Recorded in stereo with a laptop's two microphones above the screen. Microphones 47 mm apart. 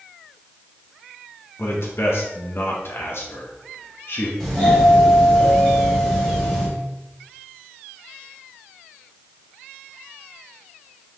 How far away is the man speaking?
About 0.8 m.